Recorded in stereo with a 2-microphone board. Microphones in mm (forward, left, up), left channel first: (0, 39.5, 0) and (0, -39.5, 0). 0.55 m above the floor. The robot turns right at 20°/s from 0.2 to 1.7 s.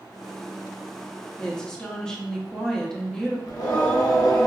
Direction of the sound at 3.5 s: 50° left (ahead or behind).